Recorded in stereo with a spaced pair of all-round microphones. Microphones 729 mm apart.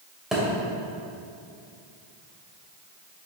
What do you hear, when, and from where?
0.3 s a thud: centre (ahead or behind), 2.5 m